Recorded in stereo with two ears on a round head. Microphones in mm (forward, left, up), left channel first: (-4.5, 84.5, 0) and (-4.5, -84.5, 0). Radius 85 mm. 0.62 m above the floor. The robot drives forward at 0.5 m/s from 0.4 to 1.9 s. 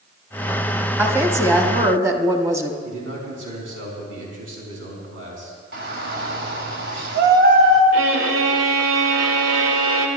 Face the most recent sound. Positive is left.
turn(degrees=-75)  # may be behind; listen again after turning